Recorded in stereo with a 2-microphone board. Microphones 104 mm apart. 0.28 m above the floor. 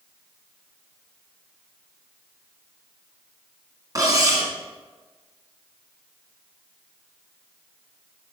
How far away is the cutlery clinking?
About 1.8 m.